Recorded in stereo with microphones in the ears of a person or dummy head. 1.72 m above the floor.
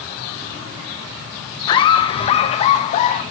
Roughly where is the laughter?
Left.